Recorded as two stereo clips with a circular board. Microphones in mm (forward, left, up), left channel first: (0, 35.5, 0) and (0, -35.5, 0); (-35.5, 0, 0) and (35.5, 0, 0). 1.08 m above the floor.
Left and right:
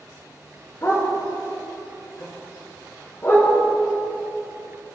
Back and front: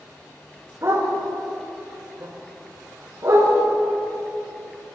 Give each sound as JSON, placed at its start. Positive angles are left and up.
{"t": 0.8, "sound": "a dog barking", "azimuth_deg": 45, "distance_m": 5.5}